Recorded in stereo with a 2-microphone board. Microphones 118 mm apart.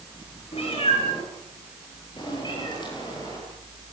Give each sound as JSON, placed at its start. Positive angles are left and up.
{"t": 0.5, "sound": "a cat meowing", "side_deg": 55, "distance_m": 9.5}